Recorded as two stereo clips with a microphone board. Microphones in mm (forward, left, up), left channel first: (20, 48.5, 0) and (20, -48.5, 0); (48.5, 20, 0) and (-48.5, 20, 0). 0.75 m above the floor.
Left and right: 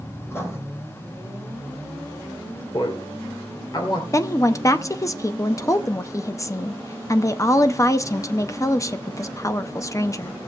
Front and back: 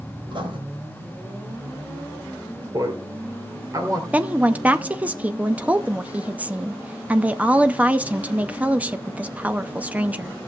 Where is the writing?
150° left, 3.5 m.